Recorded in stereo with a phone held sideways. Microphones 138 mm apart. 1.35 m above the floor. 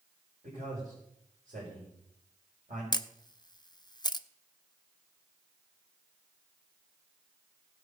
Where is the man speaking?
75° right (ahead or behind), 5.5 m.